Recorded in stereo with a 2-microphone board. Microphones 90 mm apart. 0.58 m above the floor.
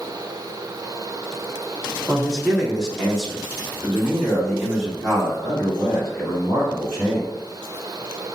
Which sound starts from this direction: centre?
A man speaking, at 2.1 s.